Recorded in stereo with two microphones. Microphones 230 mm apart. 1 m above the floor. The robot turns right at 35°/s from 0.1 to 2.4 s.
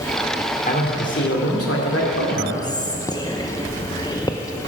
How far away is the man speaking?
About 2.5 m.